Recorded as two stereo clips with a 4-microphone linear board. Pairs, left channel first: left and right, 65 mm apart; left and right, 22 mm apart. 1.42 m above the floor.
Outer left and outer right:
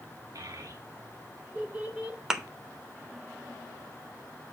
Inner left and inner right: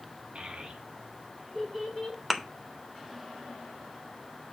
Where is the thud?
10° right (ahead or behind), 0.8 m.